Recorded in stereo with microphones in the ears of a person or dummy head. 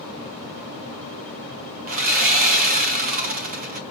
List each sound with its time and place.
1.9 s sawing: 45° right (ahead or behind), 0.9 m